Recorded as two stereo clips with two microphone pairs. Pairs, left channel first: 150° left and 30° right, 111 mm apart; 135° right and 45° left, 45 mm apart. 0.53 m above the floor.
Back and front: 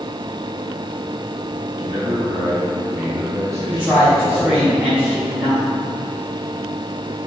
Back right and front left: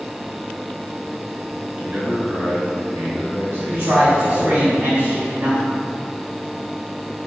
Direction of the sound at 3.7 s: 45° left.